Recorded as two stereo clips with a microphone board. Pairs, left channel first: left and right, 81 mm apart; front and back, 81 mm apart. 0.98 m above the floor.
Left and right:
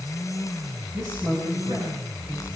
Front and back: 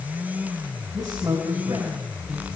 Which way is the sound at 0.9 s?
135° right.